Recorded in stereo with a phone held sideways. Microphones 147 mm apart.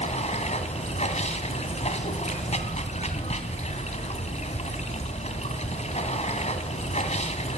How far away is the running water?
About 2 m.